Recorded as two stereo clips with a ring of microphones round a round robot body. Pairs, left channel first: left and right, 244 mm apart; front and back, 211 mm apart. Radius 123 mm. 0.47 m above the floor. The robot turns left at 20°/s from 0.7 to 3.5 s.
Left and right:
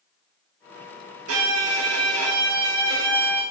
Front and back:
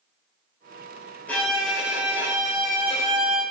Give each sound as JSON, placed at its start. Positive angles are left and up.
{"t": 1.3, "sound": "a violin", "azimuth_deg": -85, "distance_m": 1.7}